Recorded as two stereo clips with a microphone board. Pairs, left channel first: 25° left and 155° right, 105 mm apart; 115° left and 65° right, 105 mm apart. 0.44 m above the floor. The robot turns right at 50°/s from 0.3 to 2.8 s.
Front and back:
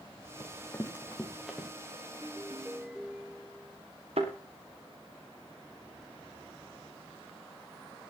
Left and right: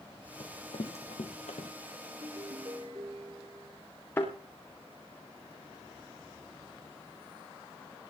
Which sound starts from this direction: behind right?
A ringtone, at 2.1 s.